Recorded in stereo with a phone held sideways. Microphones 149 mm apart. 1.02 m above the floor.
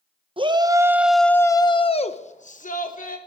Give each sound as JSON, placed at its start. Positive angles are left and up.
{"t": 0.4, "sound": "a shout", "side_deg": -35, "distance_m": 0.8}